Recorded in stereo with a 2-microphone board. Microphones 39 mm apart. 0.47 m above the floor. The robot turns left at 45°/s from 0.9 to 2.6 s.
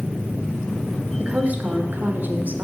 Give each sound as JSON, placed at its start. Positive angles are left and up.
{"t": 1.2, "sound": "a woman speaking", "azimuth_deg": -40, "distance_m": 1.2}